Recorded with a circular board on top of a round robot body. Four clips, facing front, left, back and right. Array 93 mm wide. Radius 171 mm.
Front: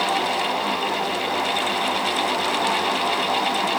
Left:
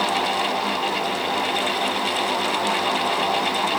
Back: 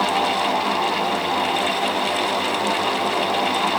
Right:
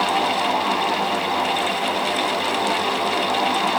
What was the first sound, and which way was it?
Only background noise.